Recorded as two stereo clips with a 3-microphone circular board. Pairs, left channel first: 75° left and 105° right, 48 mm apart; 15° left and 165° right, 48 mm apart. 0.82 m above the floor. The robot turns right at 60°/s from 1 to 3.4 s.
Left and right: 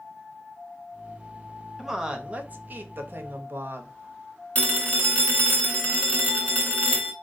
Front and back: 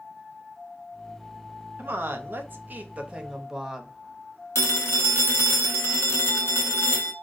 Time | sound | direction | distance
1.8 | a woman speaking | 175° left | 0.6 m
4.5 | a phone ringing | 20° left | 0.8 m